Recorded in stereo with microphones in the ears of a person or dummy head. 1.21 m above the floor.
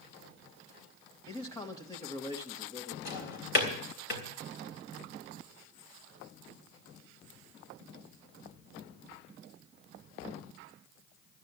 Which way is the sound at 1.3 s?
15° left (ahead or behind).